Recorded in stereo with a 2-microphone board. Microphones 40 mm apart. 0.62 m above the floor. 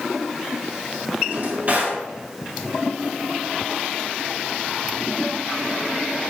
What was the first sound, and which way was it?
A drawer, 40° right (ahead or behind).